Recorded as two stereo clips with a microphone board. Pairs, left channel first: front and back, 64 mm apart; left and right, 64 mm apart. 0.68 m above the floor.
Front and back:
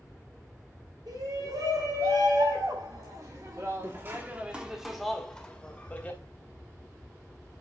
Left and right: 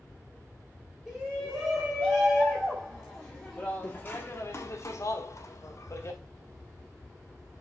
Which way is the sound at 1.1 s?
170° right.